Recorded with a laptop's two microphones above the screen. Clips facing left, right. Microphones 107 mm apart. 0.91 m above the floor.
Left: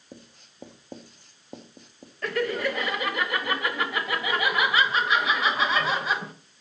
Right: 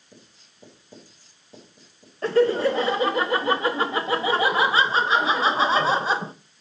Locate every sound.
0.1 s writing: 60° left (ahead or behind), 1.7 m
2.2 s laughter: 30° right (ahead or behind), 0.6 m